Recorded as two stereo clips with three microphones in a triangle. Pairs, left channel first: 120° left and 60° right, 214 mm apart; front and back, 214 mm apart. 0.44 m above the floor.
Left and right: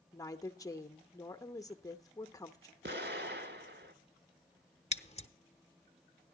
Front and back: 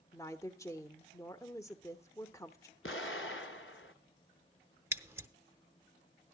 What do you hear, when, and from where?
0.1 s a woman speaking: 60° left, 0.8 m
2.8 s an explosion: 25° right, 1.1 m
4.9 s scissors: 115° left, 0.8 m